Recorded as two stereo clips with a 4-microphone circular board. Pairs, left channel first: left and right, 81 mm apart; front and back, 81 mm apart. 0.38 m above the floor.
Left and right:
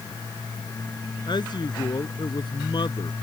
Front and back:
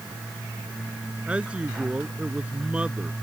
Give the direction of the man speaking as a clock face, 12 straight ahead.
8 o'clock.